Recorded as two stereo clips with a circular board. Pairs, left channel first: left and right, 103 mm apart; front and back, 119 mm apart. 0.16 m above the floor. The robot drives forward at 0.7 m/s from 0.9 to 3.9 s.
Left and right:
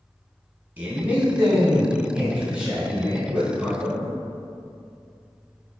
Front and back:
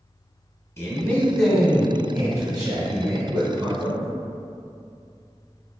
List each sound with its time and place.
0.8 s a man speaking: 35° right, 1.2 m; by 4.0 s 170° right, 2.0 m